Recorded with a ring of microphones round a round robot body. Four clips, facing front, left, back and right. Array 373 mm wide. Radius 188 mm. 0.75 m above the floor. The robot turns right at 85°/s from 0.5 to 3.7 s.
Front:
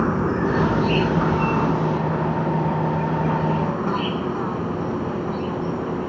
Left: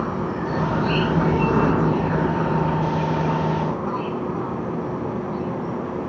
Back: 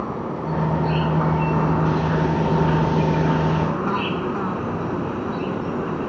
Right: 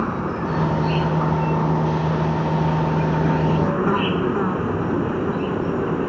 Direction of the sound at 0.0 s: 10° right.